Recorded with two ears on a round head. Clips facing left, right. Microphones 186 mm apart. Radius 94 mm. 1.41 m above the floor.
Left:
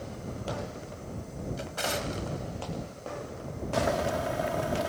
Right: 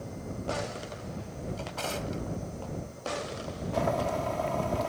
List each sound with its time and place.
1.6 s a drawer: 20° left (ahead or behind)
3.7 s boiling: 15° left (ahead or behind)